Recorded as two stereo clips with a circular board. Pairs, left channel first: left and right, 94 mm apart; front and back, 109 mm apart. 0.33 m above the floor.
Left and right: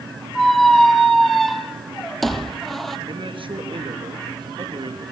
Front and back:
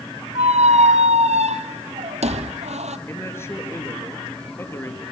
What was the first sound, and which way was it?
A squeak, straight behind.